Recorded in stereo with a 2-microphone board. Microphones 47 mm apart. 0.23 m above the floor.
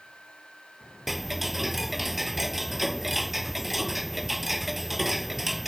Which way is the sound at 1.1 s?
5° right (ahead or behind).